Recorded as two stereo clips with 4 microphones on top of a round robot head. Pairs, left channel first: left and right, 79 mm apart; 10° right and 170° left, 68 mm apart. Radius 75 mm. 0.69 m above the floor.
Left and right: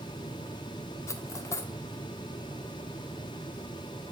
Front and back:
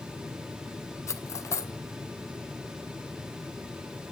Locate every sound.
1.1 s cutlery clinking: 35° left, 1.1 m